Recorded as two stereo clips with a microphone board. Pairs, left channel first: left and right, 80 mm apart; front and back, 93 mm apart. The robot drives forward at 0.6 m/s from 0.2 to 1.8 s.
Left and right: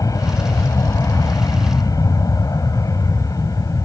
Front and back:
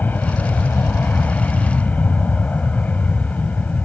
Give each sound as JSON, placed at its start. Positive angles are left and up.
{"t": 0.0, "sound": "an aircraft", "azimuth_deg": 65}